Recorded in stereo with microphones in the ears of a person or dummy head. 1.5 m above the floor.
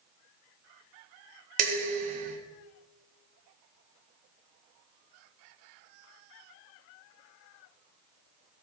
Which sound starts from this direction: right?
Dishes clattering, at 1.6 s.